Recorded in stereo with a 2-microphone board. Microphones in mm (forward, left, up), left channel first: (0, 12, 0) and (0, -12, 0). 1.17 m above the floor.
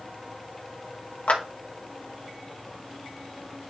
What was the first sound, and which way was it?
A clap, 70° left (ahead or behind).